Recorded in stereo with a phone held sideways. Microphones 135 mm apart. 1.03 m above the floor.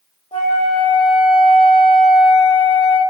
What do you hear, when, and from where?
0.3 s a flute: 40° left (ahead or behind), 0.7 m